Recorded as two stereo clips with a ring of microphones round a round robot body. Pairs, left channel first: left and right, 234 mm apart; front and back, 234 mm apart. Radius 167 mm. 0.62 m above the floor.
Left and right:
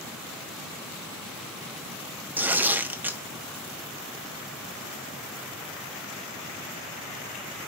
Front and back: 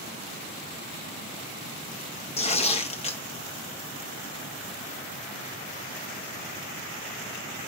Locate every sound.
2.4 s tearing paper: 15° right, 0.7 m